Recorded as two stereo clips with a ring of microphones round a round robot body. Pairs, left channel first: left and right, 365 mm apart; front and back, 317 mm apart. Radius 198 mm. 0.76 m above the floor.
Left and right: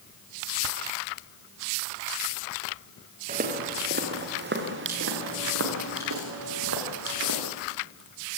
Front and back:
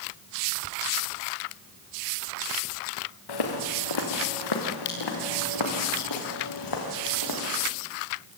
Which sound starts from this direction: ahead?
Footsteps, at 3.3 s.